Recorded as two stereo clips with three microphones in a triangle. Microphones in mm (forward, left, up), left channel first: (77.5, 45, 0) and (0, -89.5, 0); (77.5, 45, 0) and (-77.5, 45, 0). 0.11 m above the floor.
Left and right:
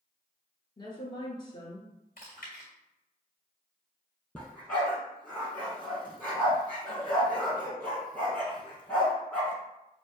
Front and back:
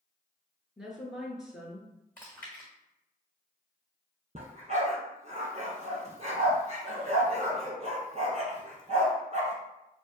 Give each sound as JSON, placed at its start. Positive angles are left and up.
{"t": 0.8, "sound": "a woman speaking", "azimuth_deg": 95, "distance_m": 1.3}
{"t": 2.2, "sound": "chewing", "azimuth_deg": 80, "distance_m": 1.8}
{"t": 4.3, "sound": "a dog barking", "azimuth_deg": 140, "distance_m": 1.3}